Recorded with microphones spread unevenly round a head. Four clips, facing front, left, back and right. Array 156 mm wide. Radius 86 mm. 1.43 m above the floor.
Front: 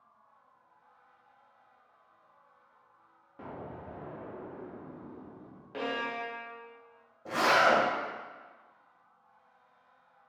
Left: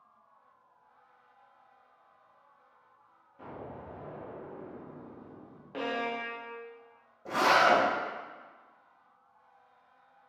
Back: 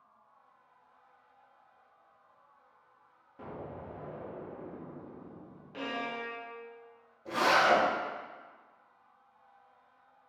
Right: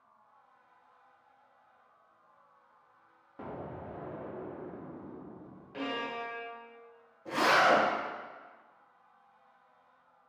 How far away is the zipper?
About 1.6 m.